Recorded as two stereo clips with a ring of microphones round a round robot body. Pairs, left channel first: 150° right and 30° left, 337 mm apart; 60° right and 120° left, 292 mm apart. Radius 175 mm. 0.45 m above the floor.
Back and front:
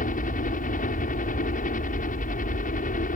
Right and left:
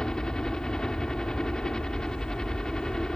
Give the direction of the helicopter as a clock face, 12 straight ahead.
5 o'clock.